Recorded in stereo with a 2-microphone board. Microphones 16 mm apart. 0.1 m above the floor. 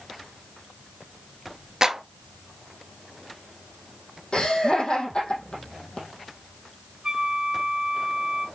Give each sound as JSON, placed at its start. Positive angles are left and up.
{"t": 1.8, "sound": "a clap", "side_deg": -35, "distance_m": 1.4}
{"t": 4.3, "sound": "laughter", "side_deg": 65, "distance_m": 4.0}
{"t": 7.0, "sound": "a flute", "side_deg": -40, "distance_m": 0.8}